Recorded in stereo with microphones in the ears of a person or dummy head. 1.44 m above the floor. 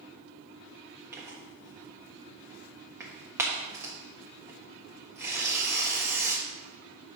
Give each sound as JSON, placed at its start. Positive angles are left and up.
{"t": 1.1, "sound": "tearing paper", "side_deg": -15, "distance_m": 1.4}